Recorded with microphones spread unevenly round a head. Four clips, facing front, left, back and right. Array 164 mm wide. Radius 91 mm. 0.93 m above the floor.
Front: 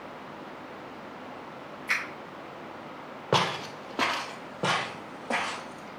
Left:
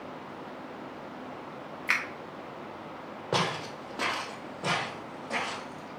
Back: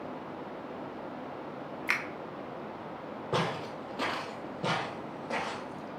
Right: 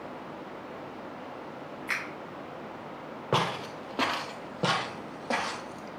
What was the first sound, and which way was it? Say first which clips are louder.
A finger snap: left 4 dB, front 2 dB; 160° left.